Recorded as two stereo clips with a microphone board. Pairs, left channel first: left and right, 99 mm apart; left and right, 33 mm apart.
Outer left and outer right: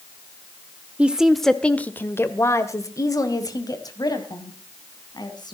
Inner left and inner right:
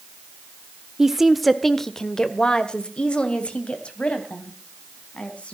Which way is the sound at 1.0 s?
15° right (ahead or behind).